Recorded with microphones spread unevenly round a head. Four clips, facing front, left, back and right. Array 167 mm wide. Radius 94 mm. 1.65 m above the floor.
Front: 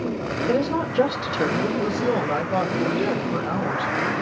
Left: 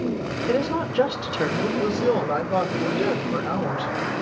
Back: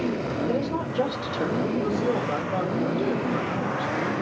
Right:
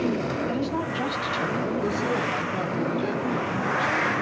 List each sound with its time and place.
0.5 s a woman speaking: 35° left, 6.5 m
1.8 s a woman speaking: 55° left, 7.5 m